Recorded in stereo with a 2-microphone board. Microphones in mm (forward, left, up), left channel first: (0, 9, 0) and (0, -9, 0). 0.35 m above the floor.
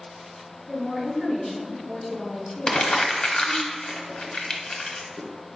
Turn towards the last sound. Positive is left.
turn(degrees=45)  # may be behind; listen again after turning